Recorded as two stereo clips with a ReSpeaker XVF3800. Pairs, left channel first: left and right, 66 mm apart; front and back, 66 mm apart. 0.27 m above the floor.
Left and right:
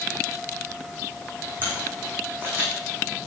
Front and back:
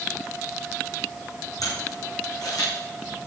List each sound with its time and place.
1.6 s a camera shutter: 30° right, 6.5 m